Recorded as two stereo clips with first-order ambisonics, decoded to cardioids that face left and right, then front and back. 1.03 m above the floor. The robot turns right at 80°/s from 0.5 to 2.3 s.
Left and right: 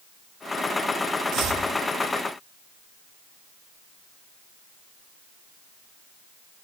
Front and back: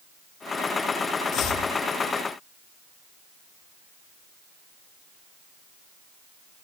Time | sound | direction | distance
1.3 | chopping | 50° right | 1.6 m